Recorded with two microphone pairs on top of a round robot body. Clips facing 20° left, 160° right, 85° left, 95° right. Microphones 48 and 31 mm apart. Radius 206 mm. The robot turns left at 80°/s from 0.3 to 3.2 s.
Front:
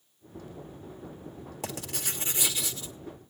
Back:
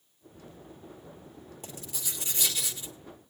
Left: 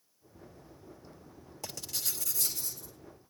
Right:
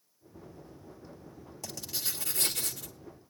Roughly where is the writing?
Ahead.